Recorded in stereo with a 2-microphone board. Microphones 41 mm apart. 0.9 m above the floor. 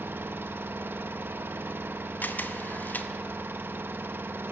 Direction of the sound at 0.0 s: 55° right (ahead or behind).